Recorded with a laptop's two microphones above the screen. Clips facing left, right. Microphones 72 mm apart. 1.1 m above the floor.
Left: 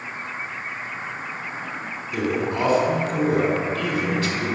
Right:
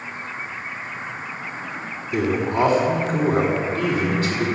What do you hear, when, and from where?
2.1 s a man speaking: 45° right (ahead or behind), 4 m